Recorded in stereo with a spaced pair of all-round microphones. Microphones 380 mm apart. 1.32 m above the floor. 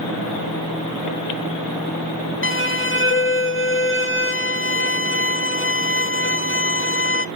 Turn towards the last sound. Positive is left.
turn(degrees=30)  # may be behind; listen again after turning